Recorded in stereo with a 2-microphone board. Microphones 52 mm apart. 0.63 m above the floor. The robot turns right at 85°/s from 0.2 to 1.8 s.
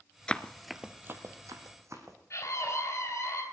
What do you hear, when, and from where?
0.3 s running footsteps: 15° left (ahead or behind), 0.6 m; by 2.2 s 65° right (ahead or behind), 3 m
2.3 s a scream: 60° left (ahead or behind), 3.5 m